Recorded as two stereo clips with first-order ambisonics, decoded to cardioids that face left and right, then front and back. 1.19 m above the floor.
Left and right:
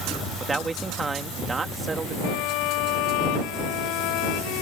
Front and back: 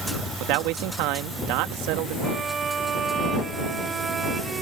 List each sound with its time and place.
0.4 s a man speaking: 165° right
2.2 s a violin: 110° left